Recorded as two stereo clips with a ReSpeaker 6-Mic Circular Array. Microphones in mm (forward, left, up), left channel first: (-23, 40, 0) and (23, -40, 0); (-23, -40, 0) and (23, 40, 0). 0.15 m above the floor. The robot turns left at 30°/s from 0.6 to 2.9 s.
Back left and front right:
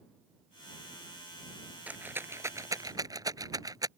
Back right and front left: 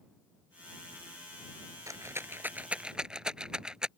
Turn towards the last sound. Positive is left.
turn(degrees=-20)